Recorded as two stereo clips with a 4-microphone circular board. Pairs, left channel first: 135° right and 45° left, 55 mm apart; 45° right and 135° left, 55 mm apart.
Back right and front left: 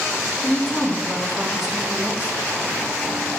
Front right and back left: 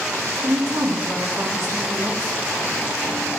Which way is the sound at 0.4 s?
155° left.